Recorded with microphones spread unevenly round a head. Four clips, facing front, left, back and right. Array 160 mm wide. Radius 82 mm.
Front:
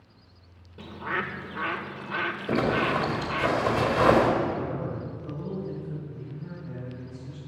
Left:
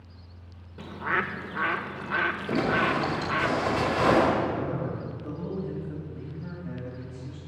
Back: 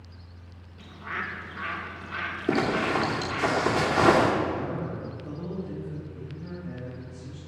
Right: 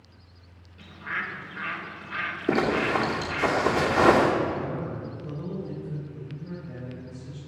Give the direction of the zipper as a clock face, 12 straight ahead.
4 o'clock.